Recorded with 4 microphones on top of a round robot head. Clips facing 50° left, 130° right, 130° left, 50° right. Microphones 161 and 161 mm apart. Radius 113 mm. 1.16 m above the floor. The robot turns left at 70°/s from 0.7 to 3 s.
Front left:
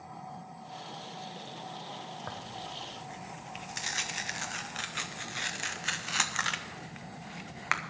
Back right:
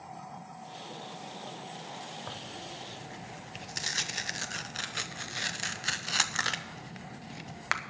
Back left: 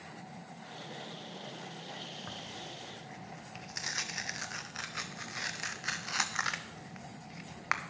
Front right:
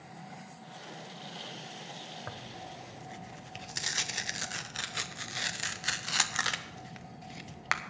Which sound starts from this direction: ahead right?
Tearing paper, at 2.3 s.